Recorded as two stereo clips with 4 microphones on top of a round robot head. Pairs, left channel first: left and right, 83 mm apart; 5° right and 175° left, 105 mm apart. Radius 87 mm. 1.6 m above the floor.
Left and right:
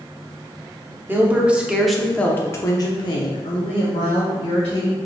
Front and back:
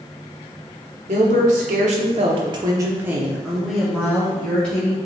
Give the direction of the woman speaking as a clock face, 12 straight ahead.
5 o'clock.